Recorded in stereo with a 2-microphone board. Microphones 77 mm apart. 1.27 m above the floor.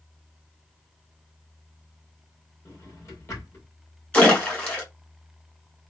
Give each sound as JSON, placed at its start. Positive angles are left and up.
{"t": 2.6, "sound": "a drawer", "side_deg": 40, "distance_m": 1.4}
{"t": 4.1, "sound": "a splash", "side_deg": 20, "distance_m": 1.7}